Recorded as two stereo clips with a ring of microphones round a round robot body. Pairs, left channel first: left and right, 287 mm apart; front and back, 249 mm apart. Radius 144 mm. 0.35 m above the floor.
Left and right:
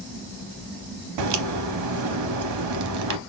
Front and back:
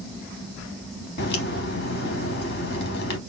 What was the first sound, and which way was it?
A crack, 60° right.